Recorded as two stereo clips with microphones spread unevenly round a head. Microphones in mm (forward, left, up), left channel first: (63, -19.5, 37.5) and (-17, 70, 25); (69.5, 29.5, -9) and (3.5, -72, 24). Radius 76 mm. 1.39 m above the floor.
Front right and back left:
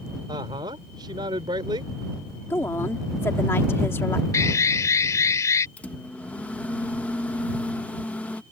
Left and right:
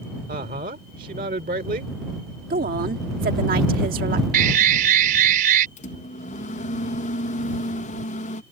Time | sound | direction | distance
0.3 | a woman speaking | 165° right | ?
2.5 | a woman speaking | 120° right | ?
4.3 | an alarm | 120° right | ?
5.8 | a microwave | 30° left | ?